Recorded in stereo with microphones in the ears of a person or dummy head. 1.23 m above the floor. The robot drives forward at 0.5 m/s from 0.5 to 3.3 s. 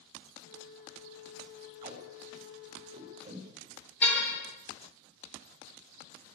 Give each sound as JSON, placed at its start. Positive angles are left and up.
{"t": 1.8, "sound": "tape being pulled", "side_deg": -45, "distance_m": 4.5}
{"t": 4.0, "sound": "a car horn", "side_deg": 10, "distance_m": 8.5}